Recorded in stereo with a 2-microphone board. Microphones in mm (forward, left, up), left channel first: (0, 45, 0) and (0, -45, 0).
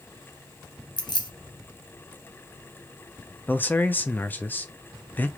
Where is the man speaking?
20° left (ahead or behind), 0.7 m.